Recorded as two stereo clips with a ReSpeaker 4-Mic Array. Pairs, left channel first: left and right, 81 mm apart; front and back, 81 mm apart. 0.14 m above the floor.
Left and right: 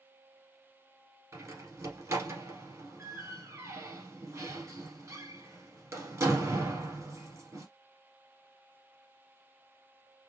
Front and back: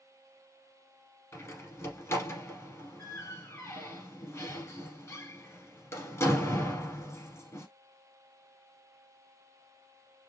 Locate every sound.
1.3 s a door slam: 45° right, 1.5 m